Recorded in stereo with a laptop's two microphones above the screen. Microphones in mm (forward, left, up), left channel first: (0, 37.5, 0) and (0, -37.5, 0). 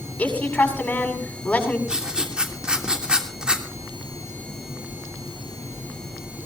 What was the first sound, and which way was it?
A woman speaking, 20° left (ahead or behind).